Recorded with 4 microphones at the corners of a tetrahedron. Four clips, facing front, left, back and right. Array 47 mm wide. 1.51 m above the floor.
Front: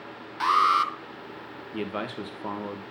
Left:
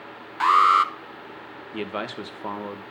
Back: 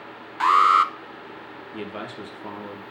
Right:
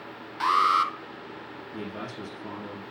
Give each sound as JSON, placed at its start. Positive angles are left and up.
{"t": 0.4, "sound": "an alarm", "azimuth_deg": 130, "distance_m": 0.6}
{"t": 1.7, "sound": "a man speaking", "azimuth_deg": 75, "distance_m": 1.3}